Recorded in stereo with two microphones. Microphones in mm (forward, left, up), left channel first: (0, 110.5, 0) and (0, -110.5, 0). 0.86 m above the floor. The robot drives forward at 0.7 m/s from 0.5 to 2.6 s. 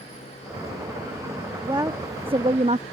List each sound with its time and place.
1.6 s a woman speaking: 15° right (ahead or behind); by 2.8 s 30° right (ahead or behind)